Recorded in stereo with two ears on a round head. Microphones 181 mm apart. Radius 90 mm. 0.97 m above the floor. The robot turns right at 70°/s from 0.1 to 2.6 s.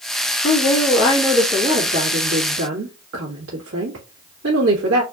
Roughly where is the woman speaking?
Behind left.